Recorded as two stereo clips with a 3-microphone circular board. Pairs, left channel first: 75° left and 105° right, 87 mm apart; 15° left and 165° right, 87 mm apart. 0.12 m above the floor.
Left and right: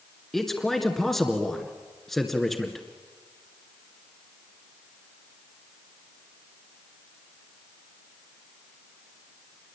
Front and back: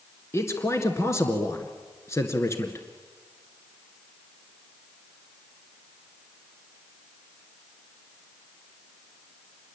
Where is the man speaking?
10° right, 1.9 m.